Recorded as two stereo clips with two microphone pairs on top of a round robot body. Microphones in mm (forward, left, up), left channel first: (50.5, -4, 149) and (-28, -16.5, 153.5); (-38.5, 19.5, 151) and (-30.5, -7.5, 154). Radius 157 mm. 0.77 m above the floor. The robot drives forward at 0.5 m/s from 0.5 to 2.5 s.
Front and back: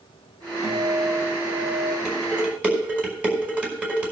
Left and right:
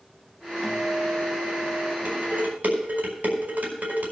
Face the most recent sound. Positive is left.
turn(degrees=-95)